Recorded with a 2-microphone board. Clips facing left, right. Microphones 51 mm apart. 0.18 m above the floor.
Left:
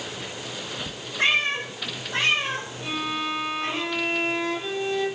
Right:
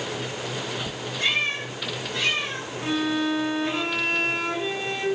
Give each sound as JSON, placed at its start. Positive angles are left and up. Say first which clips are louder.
{"t": 1.2, "sound": "a cat meowing", "louder": "left 3 dB", "side_deg": 35, "distance_m": 4.5}
{"t": 2.8, "sound": "a violin", "louder": "right 5 dB", "side_deg": -55, "distance_m": 3.5}